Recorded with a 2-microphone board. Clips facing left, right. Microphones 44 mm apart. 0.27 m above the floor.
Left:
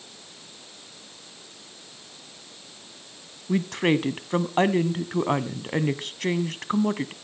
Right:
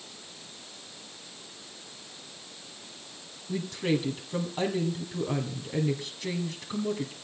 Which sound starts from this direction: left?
A woman speaking, at 3.5 s.